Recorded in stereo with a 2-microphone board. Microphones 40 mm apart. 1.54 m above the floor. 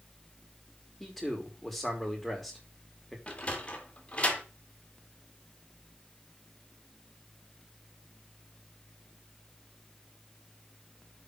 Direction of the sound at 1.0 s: 5° left (ahead or behind).